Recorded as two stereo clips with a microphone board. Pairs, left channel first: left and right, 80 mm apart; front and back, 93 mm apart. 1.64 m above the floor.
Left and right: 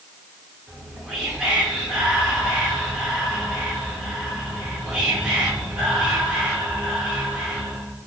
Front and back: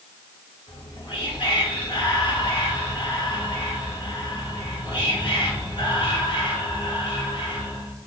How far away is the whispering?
About 1.2 m.